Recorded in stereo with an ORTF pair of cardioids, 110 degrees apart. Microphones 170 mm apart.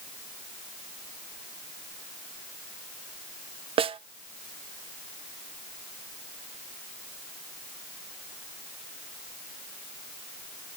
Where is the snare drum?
35° right, 0.5 m.